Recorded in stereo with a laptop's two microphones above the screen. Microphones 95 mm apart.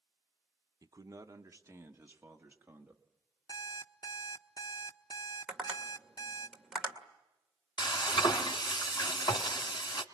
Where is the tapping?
10° right (ahead or behind), 2 m.